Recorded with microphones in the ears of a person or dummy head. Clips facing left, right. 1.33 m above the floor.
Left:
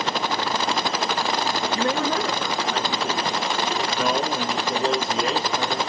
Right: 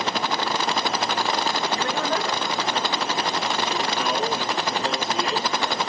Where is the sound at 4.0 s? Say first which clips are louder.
Left 1 dB; 30° left (ahead or behind), 0.9 m.